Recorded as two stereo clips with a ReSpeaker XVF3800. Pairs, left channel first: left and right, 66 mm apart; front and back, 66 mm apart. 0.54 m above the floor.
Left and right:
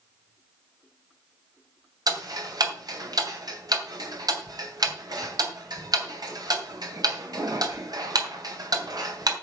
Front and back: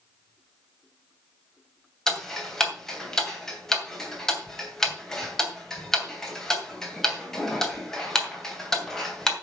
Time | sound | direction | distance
2.1 | ticking | 85° right | 2.5 m